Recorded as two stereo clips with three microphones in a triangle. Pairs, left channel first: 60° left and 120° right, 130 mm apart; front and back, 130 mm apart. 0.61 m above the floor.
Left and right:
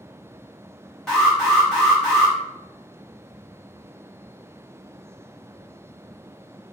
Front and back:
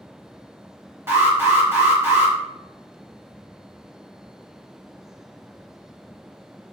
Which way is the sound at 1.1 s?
140° left.